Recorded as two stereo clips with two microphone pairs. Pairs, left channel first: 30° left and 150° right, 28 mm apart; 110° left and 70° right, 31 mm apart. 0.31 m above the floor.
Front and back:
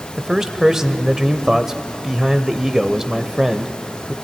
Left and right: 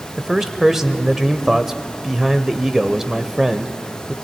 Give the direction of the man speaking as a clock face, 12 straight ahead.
4 o'clock.